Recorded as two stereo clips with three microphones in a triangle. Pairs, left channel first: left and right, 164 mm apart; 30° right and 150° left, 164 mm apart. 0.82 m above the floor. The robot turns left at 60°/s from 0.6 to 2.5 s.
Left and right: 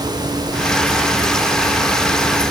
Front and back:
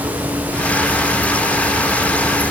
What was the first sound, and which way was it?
Only background noise.